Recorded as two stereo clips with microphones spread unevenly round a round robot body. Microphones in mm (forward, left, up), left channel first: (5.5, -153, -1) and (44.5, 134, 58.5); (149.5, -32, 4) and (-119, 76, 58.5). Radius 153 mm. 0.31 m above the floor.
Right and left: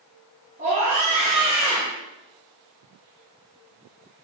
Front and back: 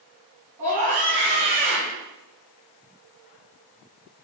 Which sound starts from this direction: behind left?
A scream, at 0.6 s.